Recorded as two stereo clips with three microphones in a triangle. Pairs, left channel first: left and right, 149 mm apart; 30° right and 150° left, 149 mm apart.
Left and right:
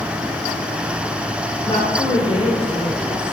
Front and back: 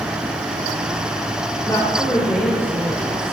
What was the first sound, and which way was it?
A woman speaking, 40° left.